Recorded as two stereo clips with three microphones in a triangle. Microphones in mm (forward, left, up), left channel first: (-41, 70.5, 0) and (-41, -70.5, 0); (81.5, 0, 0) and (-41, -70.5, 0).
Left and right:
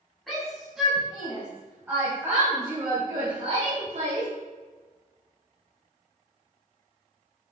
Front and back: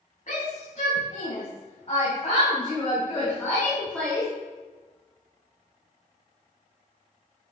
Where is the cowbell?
I don't hear a cowbell.